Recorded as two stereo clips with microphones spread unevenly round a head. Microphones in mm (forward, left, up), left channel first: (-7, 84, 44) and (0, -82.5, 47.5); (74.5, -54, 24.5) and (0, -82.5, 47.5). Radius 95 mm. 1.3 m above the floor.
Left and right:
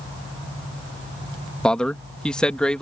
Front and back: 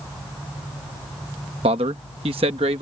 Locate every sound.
1.6 s a man speaking: straight behind